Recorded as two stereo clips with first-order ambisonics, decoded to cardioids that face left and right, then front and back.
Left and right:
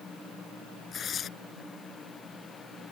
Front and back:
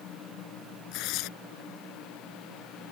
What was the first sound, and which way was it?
Tearing paper, 25° left.